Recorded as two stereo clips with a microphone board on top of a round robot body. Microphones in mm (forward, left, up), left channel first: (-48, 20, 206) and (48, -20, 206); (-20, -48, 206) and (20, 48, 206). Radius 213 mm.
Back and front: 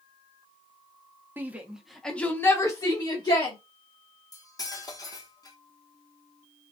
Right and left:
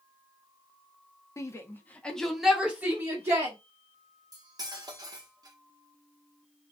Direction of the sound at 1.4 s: 80° right.